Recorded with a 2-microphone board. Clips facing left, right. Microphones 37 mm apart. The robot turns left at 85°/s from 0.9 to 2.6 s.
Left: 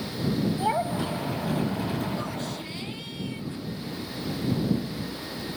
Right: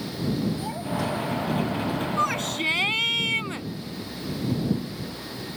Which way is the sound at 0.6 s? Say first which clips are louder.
Left 3 dB; 40° left.